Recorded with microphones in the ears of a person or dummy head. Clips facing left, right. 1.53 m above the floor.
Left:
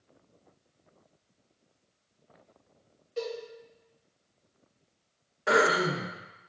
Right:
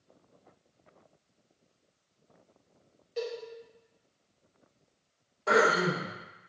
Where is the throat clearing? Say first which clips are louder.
Even; 15° left (ahead or behind), 0.7 m.